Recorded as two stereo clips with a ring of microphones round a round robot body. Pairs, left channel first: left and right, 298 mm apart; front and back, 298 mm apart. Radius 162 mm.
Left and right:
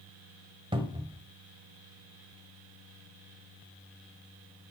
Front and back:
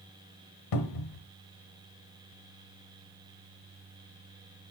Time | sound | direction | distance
0.7 | a cupboard door | 15° right | 1.3 m